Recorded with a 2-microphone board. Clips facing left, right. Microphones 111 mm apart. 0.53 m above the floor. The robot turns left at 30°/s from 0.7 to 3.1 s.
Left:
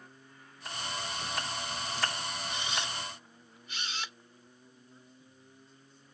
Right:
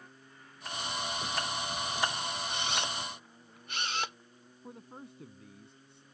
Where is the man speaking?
75° right (ahead or behind).